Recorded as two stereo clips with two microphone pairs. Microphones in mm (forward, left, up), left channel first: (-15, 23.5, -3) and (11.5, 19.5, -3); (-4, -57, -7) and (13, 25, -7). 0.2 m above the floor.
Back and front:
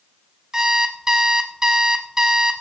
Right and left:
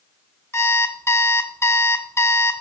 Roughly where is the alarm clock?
Right.